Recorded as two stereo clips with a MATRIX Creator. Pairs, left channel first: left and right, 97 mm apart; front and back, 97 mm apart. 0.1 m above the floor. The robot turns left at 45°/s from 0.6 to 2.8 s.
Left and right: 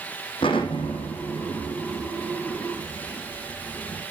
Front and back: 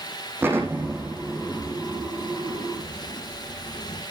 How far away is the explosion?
About 4 m.